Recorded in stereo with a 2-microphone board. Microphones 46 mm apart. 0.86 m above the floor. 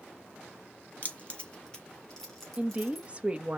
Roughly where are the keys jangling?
Left.